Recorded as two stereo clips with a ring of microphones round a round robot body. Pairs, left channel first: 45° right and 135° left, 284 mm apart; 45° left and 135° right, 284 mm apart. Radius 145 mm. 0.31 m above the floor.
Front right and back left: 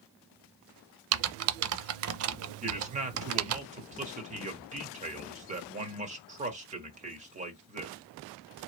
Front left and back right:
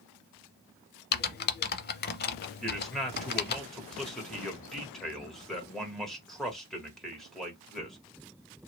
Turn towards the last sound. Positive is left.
turn(degrees=130)